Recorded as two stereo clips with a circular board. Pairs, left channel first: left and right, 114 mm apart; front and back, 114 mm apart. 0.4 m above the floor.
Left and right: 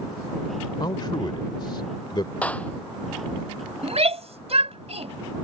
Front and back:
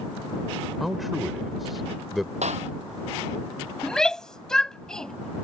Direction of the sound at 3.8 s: 85° right.